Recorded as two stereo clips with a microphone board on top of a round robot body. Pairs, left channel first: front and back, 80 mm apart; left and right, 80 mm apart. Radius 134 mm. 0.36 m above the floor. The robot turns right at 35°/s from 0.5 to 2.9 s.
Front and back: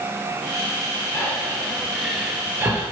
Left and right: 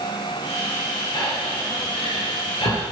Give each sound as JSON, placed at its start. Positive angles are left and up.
{"t": 1.1, "sound": "breathing", "azimuth_deg": 55, "distance_m": 2.0}